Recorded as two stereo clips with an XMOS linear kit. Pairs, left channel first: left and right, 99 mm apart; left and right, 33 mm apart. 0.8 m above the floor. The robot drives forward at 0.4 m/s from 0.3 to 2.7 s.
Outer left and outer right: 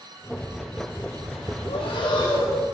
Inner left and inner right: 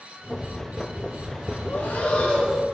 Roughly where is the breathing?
Left.